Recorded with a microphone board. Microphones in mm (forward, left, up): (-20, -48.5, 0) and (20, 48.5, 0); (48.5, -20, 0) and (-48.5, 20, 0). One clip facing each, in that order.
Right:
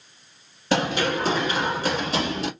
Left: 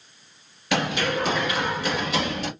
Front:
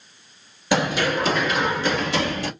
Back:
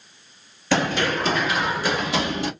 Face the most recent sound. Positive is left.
turn(degrees=-140)